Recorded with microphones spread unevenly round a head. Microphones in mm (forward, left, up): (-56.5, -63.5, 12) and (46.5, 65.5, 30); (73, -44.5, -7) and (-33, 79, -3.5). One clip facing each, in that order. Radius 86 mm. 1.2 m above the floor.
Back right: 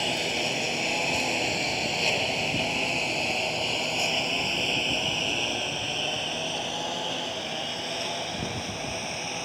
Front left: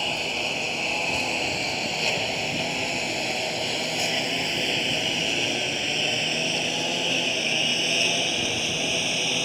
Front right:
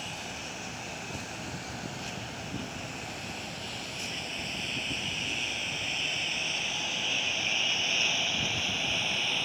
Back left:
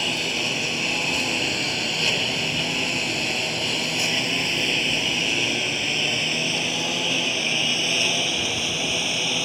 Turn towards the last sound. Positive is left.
turn(degrees=100)